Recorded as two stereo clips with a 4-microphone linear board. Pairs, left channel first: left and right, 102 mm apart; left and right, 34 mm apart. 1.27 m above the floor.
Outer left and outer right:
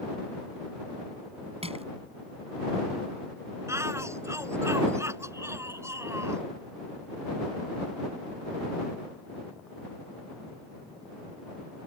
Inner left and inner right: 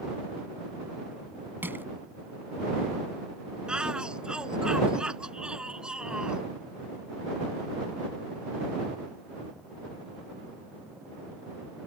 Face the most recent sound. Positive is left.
turn(degrees=-25)  # may be behind; listen again after turning